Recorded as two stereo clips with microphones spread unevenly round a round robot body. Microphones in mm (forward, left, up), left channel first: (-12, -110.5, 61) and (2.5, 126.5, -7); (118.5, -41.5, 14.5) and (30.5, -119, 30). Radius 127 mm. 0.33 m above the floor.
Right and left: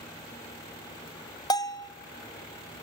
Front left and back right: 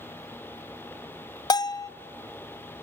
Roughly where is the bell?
Ahead.